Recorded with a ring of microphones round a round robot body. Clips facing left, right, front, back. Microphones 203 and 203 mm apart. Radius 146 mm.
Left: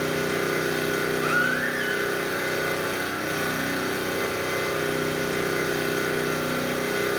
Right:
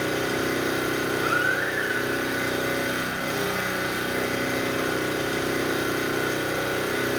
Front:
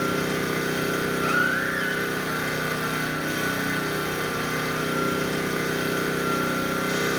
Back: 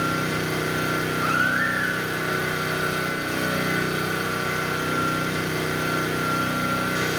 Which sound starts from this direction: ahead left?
A baby crying, at 1.2 s.